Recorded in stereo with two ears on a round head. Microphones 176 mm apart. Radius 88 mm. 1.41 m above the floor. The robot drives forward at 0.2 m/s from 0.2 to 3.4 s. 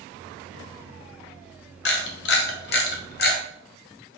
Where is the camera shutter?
60° left (ahead or behind), 0.7 m; by 3.4 s 50° left (ahead or behind), 0.7 m.